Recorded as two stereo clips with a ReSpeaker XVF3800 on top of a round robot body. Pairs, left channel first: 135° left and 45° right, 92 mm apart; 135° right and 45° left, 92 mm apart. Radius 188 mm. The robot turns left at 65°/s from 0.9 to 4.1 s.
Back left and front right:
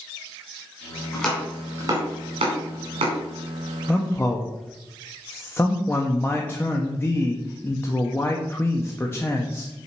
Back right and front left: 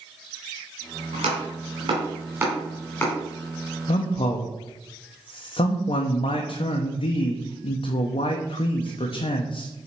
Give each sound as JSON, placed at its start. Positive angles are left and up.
{"t": 1.1, "sound": "chopping", "azimuth_deg": 60, "distance_m": 1.7}
{"t": 3.9, "sound": "a man speaking", "azimuth_deg": -140, "distance_m": 0.7}